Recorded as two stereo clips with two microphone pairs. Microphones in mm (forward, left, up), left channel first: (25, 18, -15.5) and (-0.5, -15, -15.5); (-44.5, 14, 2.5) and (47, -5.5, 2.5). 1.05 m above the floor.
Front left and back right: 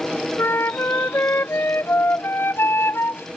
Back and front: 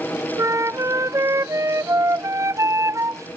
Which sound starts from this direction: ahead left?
A flute, at 0.4 s.